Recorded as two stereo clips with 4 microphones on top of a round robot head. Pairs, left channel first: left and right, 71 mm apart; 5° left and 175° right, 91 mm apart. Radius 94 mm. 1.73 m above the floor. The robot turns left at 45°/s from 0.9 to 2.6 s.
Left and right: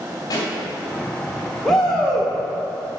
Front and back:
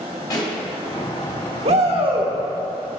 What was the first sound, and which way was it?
A pop, 55° left.